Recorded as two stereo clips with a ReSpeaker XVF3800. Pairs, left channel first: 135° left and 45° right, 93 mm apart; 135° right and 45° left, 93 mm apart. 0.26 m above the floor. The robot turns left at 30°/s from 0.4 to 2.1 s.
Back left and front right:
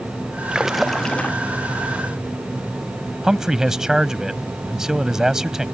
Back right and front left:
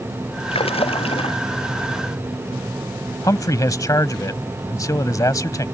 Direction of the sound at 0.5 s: 125° right.